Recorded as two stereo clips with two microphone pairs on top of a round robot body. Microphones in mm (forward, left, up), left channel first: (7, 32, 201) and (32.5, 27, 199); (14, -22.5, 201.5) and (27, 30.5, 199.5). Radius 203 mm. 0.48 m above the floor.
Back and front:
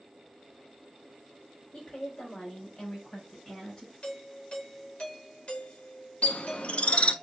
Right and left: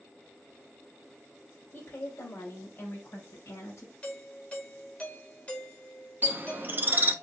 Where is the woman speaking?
145° right, 2.5 m; by 3.9 s 140° right, 4 m.